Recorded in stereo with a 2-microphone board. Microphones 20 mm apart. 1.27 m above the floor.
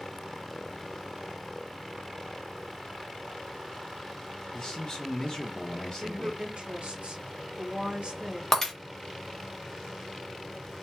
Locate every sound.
4.5 s a man speaking: 45° left (ahead or behind), 0.7 m
6.0 s a woman speaking: 75° right (ahead or behind), 1.2 m
8.5 s breaking glass: 15° left (ahead or behind), 0.9 m